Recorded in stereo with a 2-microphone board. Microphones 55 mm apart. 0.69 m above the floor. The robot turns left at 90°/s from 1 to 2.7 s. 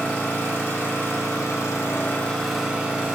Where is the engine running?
140° left, 0.9 m; by 3.1 s 15° right, 0.9 m.